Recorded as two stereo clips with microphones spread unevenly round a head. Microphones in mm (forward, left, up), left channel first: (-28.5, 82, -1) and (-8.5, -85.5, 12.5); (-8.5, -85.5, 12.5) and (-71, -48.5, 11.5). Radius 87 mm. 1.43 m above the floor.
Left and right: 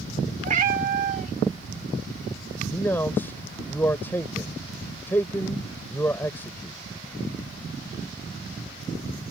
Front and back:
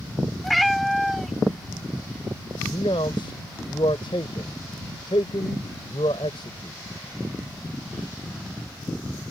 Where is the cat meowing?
120° right.